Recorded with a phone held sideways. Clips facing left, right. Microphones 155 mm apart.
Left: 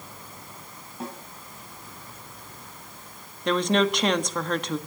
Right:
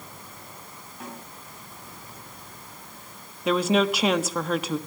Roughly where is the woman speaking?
Centre.